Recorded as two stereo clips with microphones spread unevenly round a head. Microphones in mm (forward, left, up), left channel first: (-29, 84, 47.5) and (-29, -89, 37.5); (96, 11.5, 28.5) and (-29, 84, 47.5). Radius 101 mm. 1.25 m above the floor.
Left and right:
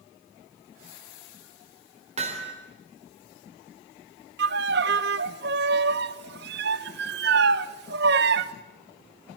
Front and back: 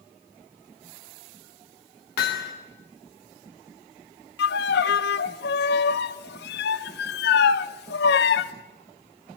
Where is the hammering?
30° right, 3 m.